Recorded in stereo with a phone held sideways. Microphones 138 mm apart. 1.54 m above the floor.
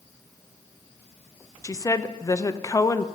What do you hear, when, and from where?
1.6 s a woman speaking: 25° left (ahead or behind), 0.5 m